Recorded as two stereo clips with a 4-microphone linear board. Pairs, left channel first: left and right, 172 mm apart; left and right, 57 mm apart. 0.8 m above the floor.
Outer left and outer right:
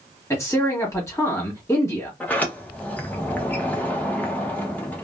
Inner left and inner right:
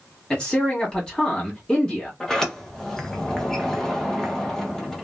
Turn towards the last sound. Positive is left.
turn(degrees=10)  # may be behind; listen again after turning